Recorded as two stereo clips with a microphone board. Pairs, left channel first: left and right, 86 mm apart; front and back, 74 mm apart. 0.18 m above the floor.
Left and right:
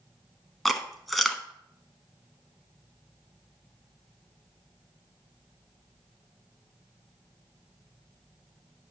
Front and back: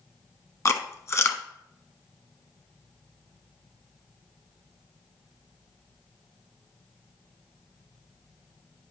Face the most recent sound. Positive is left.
turn(degrees=0)